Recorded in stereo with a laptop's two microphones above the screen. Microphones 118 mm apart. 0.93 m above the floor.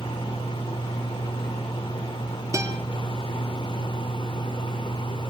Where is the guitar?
25° right (ahead or behind), 2.5 m.